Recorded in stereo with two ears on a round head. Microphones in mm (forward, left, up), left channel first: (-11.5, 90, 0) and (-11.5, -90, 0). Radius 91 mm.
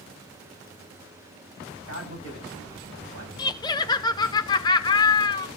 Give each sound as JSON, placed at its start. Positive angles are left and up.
{"t": 1.9, "sound": "a man speaking", "side_deg": -85, "distance_m": 8.5}
{"t": 3.4, "sound": "laughter", "side_deg": 20, "distance_m": 0.6}